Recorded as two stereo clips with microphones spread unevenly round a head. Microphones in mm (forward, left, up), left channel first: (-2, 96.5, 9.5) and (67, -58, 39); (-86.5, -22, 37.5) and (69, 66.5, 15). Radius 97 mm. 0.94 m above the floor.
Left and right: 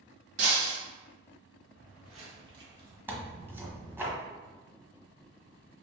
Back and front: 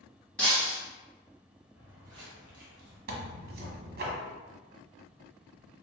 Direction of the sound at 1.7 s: 65° right.